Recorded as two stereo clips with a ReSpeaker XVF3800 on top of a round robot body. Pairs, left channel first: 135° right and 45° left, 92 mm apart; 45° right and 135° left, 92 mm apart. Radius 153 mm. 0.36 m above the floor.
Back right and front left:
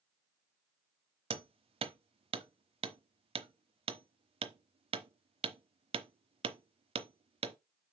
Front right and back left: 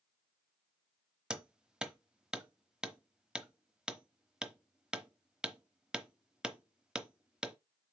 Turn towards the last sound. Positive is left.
turn(degrees=55)